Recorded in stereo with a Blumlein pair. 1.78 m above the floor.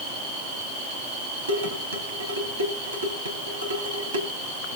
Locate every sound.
1.5 s dishes clattering: 65° right, 3.5 m